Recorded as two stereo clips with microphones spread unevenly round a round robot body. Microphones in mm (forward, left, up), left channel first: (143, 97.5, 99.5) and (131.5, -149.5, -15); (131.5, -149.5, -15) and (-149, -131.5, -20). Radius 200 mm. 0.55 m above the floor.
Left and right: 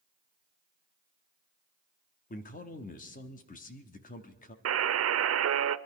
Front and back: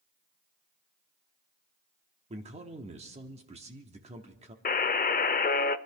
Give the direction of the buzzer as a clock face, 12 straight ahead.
2 o'clock.